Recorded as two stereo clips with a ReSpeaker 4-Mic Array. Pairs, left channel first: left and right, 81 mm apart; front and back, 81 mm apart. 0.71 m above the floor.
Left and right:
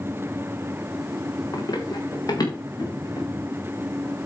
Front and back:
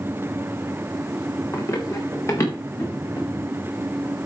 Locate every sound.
1.5 s running footsteps: 50° left, 3.5 m; by 3.3 s 45° left, 5.5 m